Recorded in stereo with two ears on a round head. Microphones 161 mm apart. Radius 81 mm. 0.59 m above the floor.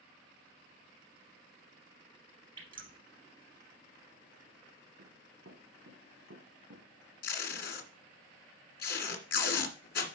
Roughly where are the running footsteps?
Right.